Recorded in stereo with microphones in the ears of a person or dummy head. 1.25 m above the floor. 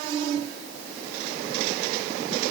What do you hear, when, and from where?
Only background noise.